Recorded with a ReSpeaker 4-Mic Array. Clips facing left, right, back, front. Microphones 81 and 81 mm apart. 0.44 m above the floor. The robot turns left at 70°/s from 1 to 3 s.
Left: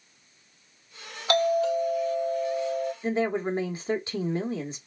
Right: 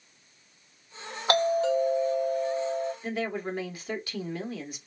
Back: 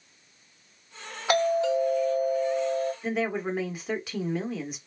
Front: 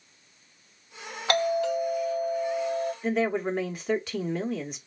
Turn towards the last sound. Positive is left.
turn(degrees=95)